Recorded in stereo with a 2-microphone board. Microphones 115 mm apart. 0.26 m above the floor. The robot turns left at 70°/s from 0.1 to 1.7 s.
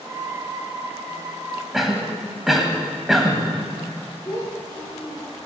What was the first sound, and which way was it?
A cough, 5° right (ahead or behind).